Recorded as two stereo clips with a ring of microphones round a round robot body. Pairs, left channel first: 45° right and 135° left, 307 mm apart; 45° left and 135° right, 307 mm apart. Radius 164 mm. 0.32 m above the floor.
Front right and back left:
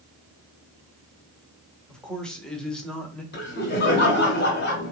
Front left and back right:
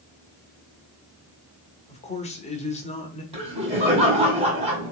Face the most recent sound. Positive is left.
turn(degrees=-75)